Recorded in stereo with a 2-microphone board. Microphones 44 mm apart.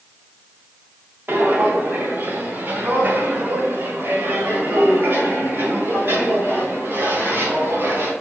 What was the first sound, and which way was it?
Footsteps, 60° right (ahead or behind).